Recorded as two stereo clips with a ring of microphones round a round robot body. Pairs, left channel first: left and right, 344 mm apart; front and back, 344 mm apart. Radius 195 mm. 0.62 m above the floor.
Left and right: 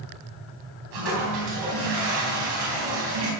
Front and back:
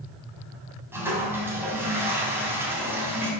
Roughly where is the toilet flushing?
Right.